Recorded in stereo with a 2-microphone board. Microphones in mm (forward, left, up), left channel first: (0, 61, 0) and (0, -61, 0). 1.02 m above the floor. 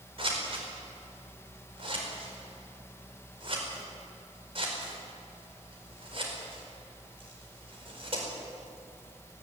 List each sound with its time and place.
0.2 s scissors: 50° right (ahead or behind), 4.5 m